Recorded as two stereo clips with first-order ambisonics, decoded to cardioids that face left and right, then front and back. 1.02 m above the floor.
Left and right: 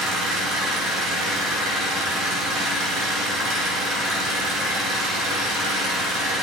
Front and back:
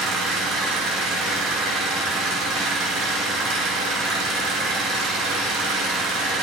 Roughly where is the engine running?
Behind right.